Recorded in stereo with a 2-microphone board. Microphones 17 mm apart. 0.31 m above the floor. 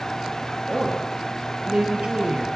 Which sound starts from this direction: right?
A woman speaking, at 0.7 s.